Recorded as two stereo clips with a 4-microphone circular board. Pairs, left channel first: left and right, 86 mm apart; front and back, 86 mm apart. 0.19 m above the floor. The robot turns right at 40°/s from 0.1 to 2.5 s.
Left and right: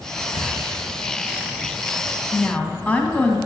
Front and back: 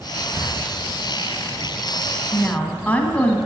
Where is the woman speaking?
35° left, 1.2 m; by 3.4 s 45° left, 1.2 m.